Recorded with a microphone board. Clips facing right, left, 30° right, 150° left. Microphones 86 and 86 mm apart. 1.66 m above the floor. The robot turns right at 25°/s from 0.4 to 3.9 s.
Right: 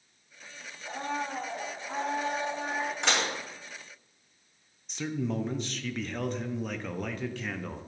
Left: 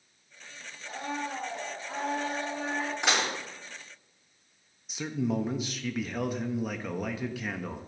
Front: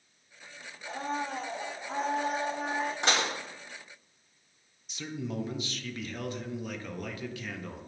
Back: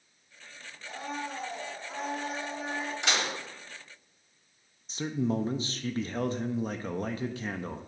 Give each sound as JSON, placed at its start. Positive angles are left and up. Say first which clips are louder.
{"t": 0.8, "sound": "a blender", "louder": "right 1 dB, front 3 dB", "azimuth_deg": -65, "distance_m": 1.3}
{"t": 3.0, "sound": "dishes clattering", "louder": "left 1 dB, front 2 dB", "azimuth_deg": 5, "distance_m": 1.3}
{"t": 4.9, "sound": "a man speaking", "louder": "left 2 dB, back 7 dB", "azimuth_deg": 170, "distance_m": 0.5}